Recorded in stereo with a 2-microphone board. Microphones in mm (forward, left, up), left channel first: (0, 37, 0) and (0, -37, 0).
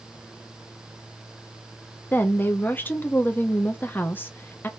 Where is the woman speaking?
30° left (ahead or behind), 0.6 m.